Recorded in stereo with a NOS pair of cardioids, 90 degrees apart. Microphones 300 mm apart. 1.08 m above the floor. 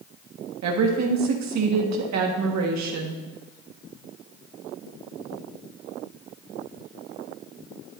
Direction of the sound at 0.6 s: 65° right.